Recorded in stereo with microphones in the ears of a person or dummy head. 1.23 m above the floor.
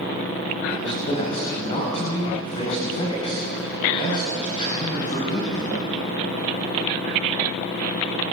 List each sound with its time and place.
0.7 s a man speaking: 35° left (ahead or behind), 6 m